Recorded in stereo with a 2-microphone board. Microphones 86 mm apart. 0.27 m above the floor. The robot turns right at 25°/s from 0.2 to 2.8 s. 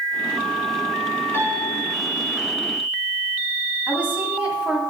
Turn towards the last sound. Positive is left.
turn(degrees=-20)  # may be behind; listen again after turning